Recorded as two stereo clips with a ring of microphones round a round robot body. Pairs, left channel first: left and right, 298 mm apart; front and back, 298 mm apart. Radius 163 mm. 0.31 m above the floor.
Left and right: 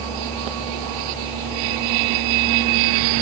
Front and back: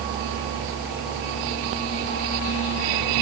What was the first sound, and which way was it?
Only background noise.